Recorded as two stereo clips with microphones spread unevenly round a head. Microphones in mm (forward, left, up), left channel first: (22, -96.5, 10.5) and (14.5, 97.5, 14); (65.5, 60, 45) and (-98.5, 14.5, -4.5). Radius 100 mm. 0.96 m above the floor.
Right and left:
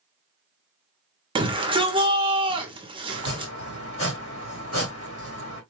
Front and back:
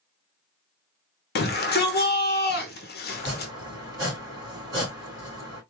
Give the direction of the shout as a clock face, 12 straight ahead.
11 o'clock.